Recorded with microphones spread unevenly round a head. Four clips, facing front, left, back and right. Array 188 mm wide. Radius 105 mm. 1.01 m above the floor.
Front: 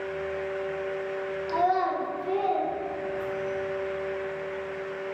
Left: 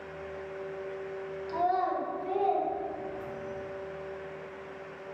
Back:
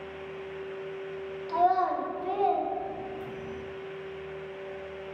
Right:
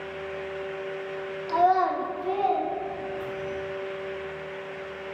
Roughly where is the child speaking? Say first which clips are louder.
Right 7 dB, back 1 dB; right.